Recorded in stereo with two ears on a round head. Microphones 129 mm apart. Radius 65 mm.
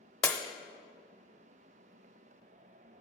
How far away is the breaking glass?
About 0.6 m.